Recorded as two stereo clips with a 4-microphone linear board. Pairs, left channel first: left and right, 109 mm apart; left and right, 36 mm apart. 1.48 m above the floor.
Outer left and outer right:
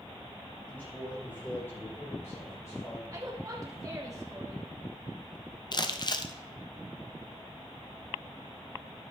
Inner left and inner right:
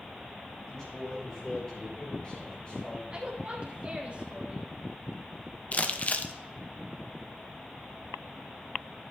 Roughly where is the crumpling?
Left.